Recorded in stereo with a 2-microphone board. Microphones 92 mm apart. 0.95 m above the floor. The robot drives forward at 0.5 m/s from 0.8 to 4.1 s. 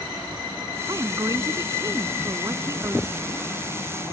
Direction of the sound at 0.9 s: 40° right (ahead or behind).